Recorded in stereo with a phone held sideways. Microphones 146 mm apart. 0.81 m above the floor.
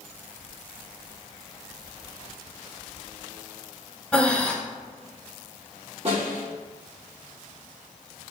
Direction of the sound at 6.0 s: 45° right (ahead or behind).